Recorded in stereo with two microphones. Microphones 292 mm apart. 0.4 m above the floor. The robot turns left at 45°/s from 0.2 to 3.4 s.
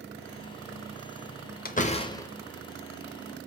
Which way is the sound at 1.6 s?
30° left (ahead or behind).